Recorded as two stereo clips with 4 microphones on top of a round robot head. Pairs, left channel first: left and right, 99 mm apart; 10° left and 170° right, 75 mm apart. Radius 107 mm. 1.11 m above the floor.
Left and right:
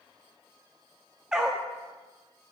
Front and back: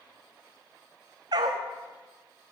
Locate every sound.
1.3 s a dog barking: 175° right, 0.6 m